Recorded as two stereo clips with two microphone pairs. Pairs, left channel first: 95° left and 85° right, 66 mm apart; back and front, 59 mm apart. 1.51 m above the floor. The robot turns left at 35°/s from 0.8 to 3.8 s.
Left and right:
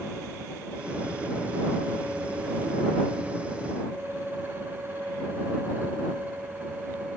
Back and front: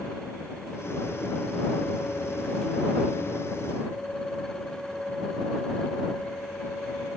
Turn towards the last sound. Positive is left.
No sound to turn to.